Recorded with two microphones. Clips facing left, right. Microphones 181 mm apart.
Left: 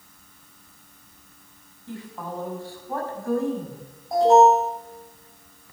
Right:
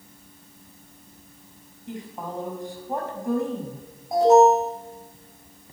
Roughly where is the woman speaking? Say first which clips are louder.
Even; right.